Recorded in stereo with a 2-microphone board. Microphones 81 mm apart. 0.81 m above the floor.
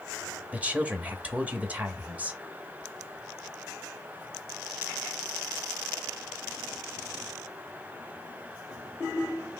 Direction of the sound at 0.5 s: 20° right (ahead or behind).